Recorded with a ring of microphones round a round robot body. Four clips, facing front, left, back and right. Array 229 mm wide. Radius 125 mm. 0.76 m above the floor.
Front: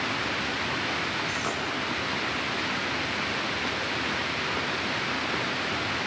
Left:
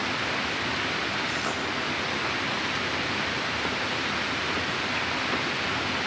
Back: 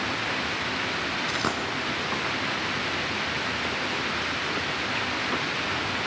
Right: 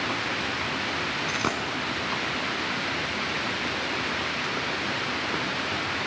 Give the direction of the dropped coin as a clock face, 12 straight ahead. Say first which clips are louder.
Right 2 dB, back 3 dB; 4 o'clock.